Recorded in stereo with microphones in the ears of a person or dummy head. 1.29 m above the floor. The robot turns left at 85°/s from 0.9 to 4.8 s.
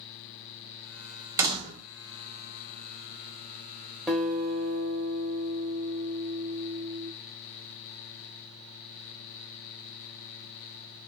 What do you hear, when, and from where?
1.4 s a door slam: 15° right, 0.7 m; by 1.9 s 55° right, 0.7 m
4.1 s a guitar: straight ahead, 0.7 m; by 7.1 s 60° right, 0.7 m